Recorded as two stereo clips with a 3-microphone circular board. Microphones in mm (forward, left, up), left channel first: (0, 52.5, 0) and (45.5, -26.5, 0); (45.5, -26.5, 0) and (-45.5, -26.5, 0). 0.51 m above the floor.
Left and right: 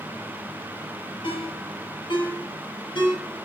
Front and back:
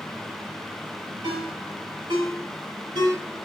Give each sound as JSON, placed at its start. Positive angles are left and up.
{"t": 1.2, "sound": "a ringtone", "azimuth_deg": 140, "distance_m": 6.0}